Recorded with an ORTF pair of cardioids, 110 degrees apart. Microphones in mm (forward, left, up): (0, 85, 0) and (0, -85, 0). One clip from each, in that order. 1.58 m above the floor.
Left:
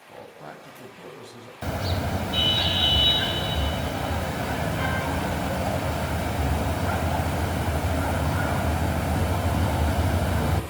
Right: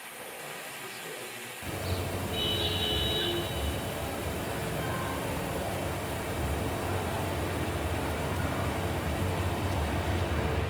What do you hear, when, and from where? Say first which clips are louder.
0.1 s a man speaking: left 3 dB; 45° left, 8.5 m
1.6 s a car horn: left 7 dB; 60° left, 4.5 m